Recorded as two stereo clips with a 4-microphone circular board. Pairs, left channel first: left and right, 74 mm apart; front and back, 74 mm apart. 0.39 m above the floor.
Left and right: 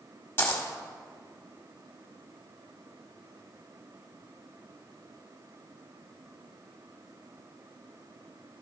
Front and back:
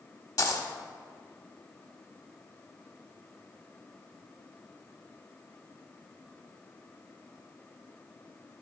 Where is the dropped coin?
30° left, 1.2 m.